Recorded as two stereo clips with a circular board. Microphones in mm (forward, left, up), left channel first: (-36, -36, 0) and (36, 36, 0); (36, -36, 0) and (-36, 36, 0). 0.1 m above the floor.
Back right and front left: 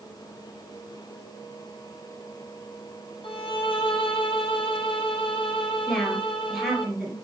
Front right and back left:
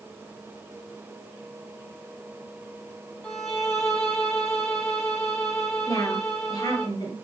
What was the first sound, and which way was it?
A violin, 125° right.